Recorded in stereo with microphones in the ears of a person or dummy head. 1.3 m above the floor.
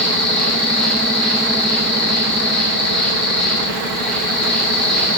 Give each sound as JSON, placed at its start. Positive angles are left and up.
{"t": 0.0, "sound": "an insect", "side_deg": 5, "distance_m": 1.6}